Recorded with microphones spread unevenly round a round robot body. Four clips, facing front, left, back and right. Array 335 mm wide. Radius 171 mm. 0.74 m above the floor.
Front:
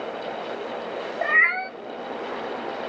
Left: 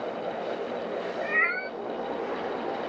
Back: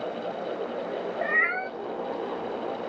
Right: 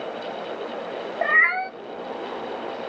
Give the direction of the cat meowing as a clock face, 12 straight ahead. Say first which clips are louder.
Right 11 dB, front 6 dB; 2 o'clock.